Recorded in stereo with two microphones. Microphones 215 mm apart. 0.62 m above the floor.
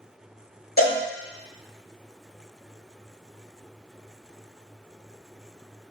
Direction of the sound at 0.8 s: 50° left (ahead or behind).